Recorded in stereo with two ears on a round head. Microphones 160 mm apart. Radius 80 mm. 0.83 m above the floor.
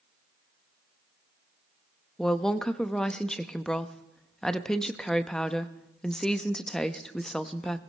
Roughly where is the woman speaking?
Centre.